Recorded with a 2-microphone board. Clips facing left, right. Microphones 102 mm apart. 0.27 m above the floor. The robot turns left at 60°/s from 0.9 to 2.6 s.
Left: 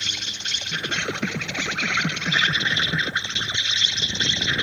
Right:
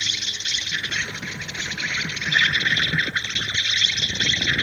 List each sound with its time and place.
0.0 s an insect: 130° left; by 4.6 s 30° left